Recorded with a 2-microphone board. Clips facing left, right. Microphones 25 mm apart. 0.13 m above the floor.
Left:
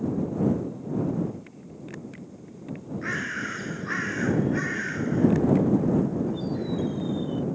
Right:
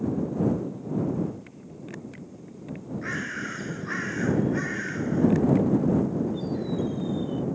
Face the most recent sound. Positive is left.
turn(degrees=10)  # may be behind; listen again after turning